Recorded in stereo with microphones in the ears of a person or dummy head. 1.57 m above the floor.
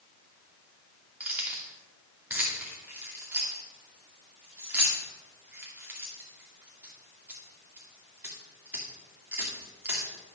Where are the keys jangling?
10° right (ahead or behind), 2 m.